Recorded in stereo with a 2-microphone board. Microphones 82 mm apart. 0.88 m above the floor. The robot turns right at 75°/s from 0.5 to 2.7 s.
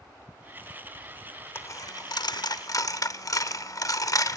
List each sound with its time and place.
1.6 s a dropped coin: 35° left (ahead or behind), 0.8 m; by 4.4 s 45° left (ahead or behind), 0.8 m